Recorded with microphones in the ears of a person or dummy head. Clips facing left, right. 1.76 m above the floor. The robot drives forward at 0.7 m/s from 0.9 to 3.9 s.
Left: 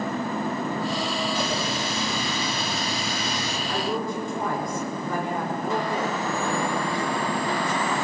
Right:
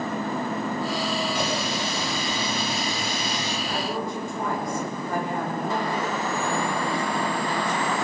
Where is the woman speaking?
85° left, 6 m.